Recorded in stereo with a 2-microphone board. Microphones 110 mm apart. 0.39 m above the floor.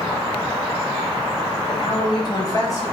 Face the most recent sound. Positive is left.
turn(degrees=25)  # may be behind; listen again after turning